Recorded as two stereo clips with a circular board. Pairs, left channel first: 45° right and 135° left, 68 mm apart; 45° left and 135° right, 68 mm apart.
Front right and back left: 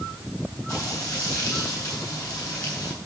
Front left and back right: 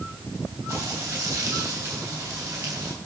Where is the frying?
75° right, 9 m.